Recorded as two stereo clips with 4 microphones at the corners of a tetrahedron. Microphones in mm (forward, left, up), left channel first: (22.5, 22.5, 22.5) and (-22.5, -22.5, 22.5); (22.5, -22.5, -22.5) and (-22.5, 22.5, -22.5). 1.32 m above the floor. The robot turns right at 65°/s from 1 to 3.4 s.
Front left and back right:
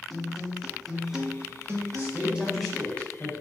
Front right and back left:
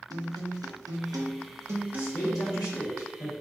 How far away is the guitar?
About 0.8 m.